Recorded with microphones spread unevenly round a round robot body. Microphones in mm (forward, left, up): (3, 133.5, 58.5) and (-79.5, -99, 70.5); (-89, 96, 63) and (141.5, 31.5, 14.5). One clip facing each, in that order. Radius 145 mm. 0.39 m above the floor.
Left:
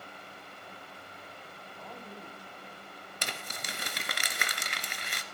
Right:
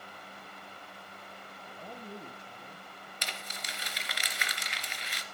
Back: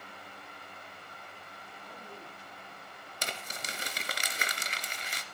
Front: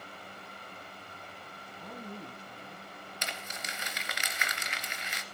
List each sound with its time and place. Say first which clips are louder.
1.7 s a woman speaking: right 3 dB, front 7 dB; 40° right, 3 m
3.2 s crumpling: left 4 dB, back 3 dB; 110° left, 2.5 m